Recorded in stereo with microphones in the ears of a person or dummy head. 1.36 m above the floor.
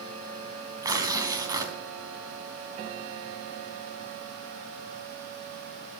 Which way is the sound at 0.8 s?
25° right (ahead or behind).